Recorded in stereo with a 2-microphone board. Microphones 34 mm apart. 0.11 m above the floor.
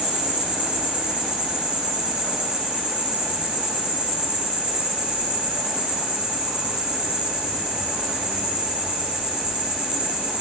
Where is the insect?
35° right (ahead or behind), 5.5 m.